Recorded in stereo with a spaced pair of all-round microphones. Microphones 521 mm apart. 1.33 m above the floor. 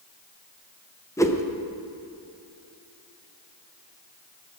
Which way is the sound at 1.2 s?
5° left (ahead or behind).